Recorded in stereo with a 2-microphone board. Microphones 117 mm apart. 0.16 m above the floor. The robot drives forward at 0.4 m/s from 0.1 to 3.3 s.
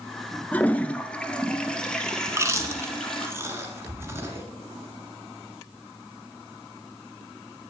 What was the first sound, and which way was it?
A toilet flushing, 15° left (ahead or behind).